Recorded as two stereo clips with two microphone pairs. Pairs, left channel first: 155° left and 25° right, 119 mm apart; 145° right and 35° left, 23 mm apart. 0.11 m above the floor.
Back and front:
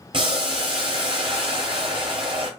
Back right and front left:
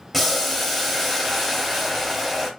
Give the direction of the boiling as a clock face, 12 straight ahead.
2 o'clock.